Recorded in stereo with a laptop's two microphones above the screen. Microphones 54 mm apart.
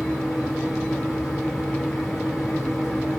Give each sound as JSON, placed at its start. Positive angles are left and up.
{"t": 0.0, "sound": "a fan", "side_deg": 5, "distance_m": 1.3}